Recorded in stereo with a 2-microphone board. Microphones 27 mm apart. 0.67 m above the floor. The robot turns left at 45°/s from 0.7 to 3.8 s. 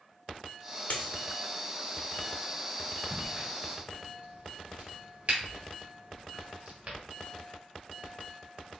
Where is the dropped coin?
70° left (ahead or behind), 0.8 m; by 1.1 s 75° left (ahead or behind), 0.8 m.